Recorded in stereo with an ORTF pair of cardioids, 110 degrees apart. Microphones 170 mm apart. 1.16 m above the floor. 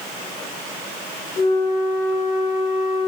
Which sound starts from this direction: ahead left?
A flute, at 1.4 s.